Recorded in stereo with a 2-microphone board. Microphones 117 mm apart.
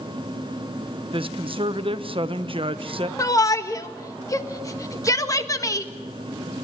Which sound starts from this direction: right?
A woman speaking, at 1.1 s.